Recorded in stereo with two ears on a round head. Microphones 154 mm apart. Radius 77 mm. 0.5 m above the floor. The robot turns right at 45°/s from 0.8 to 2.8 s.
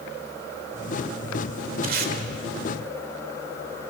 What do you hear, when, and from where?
1.8 s tape being pulled: 50° right (ahead or behind), 2 m; by 2.1 s 55° right (ahead or behind), 2 m